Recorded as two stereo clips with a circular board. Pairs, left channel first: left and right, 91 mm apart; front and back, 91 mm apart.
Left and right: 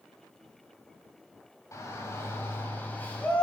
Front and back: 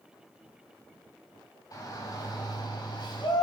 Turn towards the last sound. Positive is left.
turn(degrees=15)